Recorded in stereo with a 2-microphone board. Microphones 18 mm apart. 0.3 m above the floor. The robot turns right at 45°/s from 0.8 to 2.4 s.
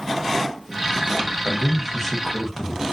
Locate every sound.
1.4 s a man speaking: 5° right (ahead or behind), 0.9 m; by 2.8 s 10° left (ahead or behind), 0.9 m